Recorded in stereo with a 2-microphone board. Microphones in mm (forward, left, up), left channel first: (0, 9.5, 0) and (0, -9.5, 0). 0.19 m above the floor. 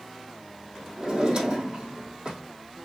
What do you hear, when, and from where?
1.0 s a drawer: 40° right (ahead or behind), 2.5 m